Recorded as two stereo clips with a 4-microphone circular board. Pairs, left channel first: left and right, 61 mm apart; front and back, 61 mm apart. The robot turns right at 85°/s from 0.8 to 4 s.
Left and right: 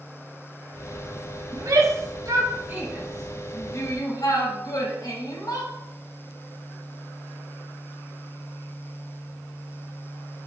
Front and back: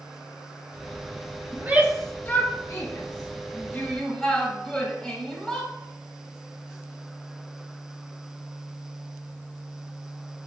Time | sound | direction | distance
1.5 | a shout | 130° right | 5 m